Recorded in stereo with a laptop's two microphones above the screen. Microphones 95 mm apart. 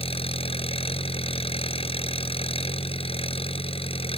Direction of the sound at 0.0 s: 85° left.